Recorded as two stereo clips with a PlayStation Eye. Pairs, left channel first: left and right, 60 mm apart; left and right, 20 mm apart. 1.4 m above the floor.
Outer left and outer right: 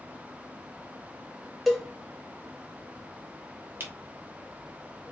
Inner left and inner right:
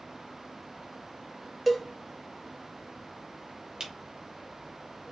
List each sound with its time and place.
1.7 s a cowbell: centre (ahead or behind), 0.8 m
3.8 s a camera shutter: 35° right (ahead or behind), 1.3 m